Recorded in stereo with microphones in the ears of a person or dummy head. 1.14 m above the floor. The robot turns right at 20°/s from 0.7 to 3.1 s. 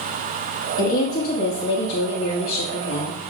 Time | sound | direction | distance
0.8 | a woman speaking | 50° left | 1.4 m